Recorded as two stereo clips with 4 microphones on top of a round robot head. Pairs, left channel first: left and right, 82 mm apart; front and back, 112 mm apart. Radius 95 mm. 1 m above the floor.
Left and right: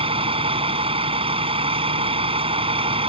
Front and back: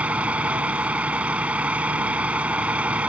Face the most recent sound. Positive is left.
turn(degrees=-100)